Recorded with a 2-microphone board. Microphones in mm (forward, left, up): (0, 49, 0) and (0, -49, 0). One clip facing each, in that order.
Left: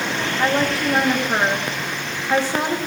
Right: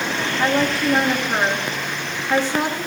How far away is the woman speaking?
About 1.4 m.